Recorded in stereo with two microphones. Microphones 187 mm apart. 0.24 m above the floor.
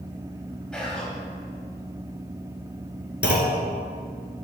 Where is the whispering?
5° left (ahead or behind), 1.5 m.